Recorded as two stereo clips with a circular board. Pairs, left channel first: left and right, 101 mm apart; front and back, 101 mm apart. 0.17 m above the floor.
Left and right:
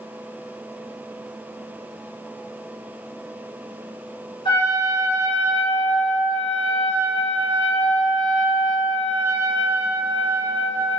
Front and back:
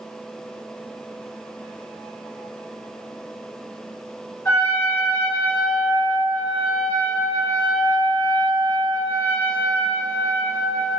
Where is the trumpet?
60° left, 1.2 m.